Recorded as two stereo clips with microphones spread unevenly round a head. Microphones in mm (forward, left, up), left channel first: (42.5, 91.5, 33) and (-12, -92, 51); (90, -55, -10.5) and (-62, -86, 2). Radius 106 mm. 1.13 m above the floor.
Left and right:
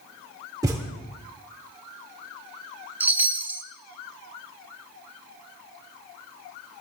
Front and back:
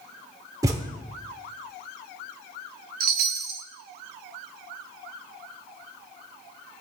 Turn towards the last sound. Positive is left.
turn(degrees=170)